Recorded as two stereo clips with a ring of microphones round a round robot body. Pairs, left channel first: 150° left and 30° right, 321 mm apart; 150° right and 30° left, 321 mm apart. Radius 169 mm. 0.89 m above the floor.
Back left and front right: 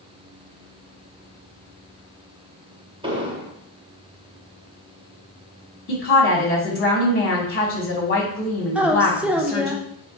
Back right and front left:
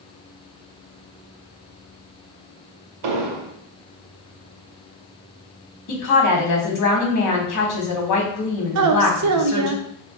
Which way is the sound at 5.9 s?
155° right.